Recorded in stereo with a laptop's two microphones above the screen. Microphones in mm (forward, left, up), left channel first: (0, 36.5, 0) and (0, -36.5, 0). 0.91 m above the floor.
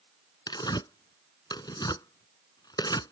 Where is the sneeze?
No sneeze in this recording.